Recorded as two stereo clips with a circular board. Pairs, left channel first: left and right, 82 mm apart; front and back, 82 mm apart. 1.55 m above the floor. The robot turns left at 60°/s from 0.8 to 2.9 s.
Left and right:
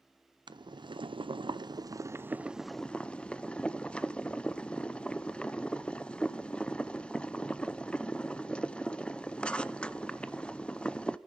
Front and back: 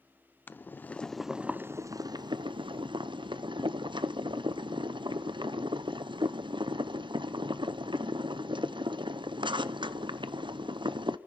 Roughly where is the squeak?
I don't hear a squeak.